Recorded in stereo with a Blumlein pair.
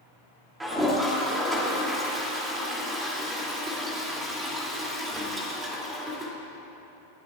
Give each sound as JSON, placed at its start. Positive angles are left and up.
{"t": 0.6, "sound": "a toilet flushing", "azimuth_deg": -10, "distance_m": 3.0}